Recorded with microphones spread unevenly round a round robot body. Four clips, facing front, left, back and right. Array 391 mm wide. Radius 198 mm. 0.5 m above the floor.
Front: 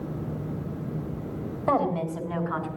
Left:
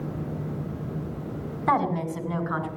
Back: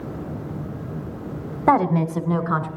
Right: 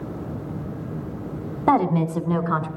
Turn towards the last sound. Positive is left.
turn(degrees=-135)